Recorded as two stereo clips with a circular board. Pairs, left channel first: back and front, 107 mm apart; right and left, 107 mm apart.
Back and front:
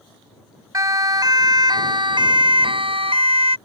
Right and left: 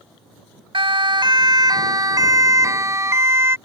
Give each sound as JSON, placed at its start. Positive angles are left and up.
{"t": 0.7, "sound": "a siren", "azimuth_deg": 55}